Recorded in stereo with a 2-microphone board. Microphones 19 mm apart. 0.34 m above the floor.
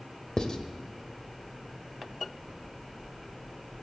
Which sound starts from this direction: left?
Writing, at 0.4 s.